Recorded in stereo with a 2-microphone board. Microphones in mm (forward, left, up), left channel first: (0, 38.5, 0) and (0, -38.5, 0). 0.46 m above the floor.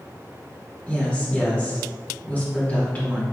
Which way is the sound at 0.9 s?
20° left (ahead or behind).